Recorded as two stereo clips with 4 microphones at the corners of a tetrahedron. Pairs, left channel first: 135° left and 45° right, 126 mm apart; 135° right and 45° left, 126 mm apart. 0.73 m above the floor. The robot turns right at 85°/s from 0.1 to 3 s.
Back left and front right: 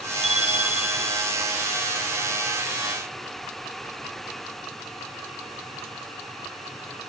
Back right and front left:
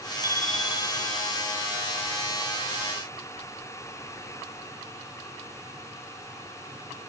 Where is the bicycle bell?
75° right; by 1.3 s 15° left.